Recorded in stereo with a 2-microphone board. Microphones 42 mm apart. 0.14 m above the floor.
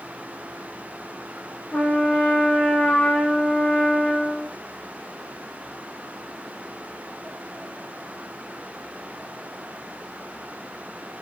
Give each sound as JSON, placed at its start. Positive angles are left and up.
{"t": 1.7, "sound": "a trumpet", "side_deg": 25, "distance_m": 2.0}